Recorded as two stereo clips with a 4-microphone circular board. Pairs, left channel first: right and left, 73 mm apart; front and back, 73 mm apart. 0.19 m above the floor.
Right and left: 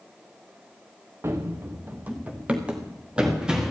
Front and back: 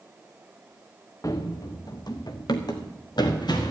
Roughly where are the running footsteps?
Ahead left.